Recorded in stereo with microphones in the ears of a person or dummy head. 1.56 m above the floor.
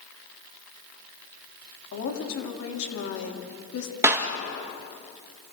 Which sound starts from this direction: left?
A woman speaking, at 1.9 s.